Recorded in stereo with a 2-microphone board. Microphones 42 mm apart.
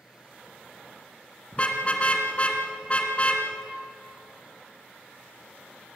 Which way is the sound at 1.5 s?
30° left (ahead or behind).